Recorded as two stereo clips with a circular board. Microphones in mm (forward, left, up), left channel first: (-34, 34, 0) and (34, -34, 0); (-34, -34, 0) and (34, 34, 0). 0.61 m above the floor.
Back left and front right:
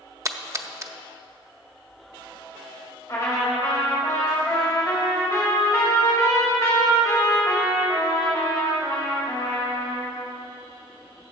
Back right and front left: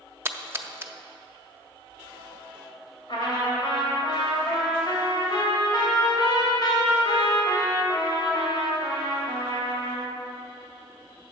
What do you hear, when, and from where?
0.2 s a splash: 10° right, 0.6 m
3.1 s a trumpet: 170° right, 2.5 m